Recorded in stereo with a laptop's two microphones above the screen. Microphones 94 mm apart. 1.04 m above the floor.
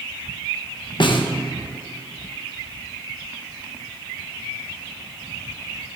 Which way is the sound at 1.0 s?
60° left (ahead or behind).